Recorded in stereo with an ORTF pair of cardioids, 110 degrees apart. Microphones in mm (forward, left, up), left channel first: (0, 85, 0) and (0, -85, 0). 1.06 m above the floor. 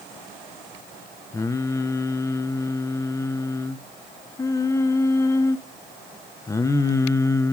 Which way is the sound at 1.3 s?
20° left.